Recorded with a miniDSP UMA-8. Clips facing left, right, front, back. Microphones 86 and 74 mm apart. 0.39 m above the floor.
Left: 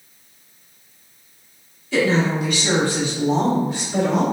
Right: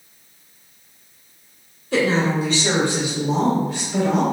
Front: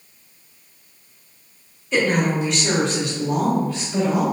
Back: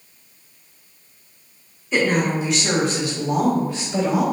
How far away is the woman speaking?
About 1.8 m.